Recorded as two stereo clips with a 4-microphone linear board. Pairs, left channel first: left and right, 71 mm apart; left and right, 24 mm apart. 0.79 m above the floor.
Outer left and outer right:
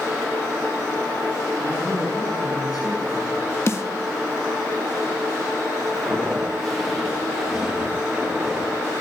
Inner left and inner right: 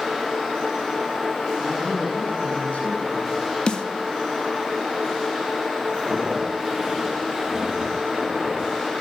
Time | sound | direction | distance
1.6 | a man speaking | 70° left (ahead or behind) | 7 m
3.7 | a snare drum | 40° left (ahead or behind) | 1.4 m
5.9 | footsteps | 15° left (ahead or behind) | 4.5 m